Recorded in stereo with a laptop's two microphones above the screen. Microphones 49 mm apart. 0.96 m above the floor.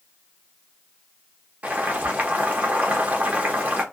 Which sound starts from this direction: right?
Boiling, at 1.6 s.